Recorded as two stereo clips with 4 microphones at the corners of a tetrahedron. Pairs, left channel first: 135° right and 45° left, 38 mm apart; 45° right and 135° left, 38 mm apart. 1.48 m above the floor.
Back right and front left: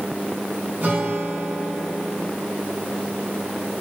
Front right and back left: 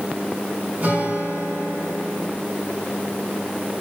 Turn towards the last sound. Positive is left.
turn(degrees=90)